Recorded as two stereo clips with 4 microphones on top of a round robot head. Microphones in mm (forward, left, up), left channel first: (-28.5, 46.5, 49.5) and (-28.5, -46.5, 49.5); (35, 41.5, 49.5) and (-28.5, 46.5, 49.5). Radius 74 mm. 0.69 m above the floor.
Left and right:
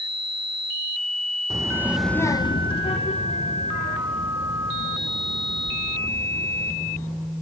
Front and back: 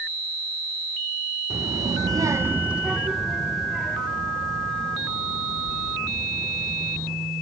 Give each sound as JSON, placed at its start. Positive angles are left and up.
{"t": 1.5, "sound": "a child speaking", "azimuth_deg": -140, "distance_m": 1.2}